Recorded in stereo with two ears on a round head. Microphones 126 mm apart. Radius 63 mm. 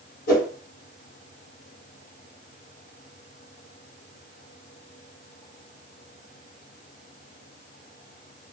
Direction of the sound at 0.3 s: 65° left (ahead or behind).